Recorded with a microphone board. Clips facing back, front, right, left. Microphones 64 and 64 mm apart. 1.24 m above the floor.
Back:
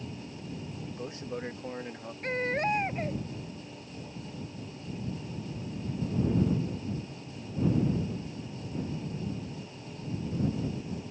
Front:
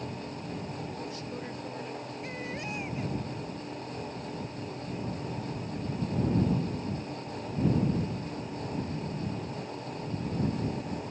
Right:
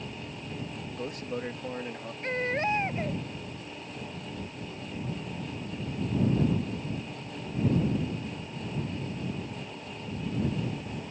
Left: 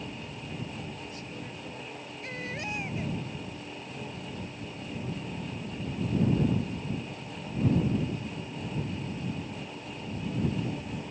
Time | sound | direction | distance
0.9 | a man speaking | 115° right | ?
2.2 | a baby crying | 140° right | ?